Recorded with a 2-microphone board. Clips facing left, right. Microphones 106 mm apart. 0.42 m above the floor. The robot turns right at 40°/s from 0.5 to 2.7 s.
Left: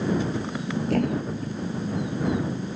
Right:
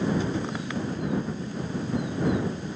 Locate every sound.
0.9 s a thud: 90° left; by 1.6 s 60° left (ahead or behind)